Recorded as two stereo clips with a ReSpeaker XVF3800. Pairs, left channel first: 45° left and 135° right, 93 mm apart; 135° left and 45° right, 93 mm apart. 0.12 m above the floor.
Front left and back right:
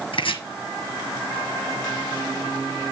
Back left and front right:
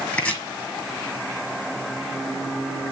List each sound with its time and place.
0.1 s chopping: 60° left, 1.5 m